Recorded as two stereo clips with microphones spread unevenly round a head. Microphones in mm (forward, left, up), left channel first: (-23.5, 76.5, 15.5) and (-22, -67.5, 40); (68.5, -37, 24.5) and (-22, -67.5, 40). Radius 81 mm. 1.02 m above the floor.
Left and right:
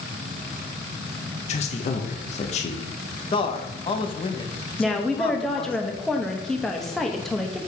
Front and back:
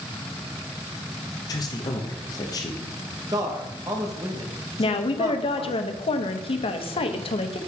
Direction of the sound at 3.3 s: 135° left.